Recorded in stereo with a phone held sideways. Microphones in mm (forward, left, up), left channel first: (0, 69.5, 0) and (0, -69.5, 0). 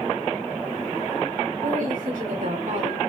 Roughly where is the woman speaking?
Right.